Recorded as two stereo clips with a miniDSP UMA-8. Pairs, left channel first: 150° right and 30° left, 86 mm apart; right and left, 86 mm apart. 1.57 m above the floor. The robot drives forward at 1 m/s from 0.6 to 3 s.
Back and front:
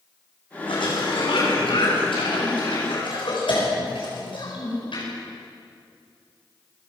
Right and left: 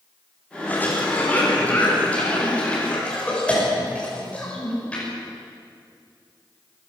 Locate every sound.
0.7 s a cough: 160° right, 5 m; by 5.0 s 165° right, 7 m